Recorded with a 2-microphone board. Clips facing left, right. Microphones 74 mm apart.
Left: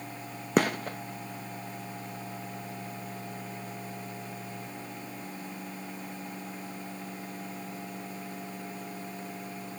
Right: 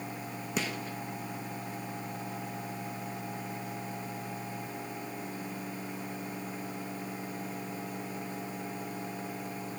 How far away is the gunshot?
About 1.0 m.